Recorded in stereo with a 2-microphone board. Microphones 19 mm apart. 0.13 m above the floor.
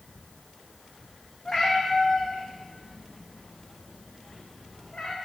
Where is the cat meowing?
35° left (ahead or behind), 2 m; by 5.2 s 80° left, 2 m.